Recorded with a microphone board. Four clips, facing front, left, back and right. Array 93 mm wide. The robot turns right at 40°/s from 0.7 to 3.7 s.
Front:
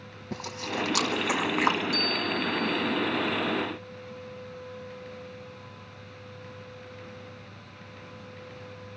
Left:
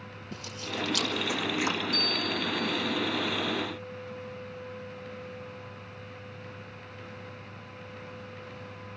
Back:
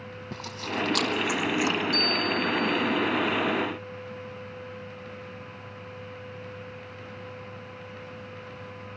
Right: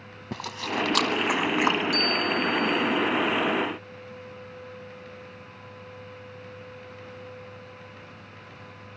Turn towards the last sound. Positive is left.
turn(degrees=-15)